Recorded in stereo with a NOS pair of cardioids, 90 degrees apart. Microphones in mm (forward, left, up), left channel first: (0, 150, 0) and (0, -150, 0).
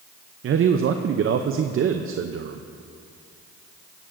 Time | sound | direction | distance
0.4 | a man speaking | 45° right | 0.6 m